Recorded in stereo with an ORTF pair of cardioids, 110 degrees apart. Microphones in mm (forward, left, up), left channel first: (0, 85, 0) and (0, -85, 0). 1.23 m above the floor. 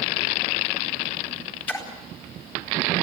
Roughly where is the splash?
Ahead.